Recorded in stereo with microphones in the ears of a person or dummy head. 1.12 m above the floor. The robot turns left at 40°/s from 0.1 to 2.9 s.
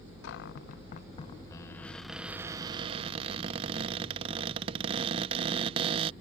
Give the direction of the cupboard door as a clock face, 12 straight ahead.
10 o'clock.